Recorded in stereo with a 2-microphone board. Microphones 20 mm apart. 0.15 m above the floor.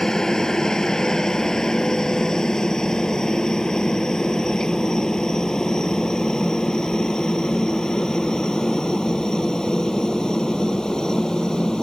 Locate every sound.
0.0 s a helicopter: 35° left (ahead or behind); by 11.8 s 40° left (ahead or behind)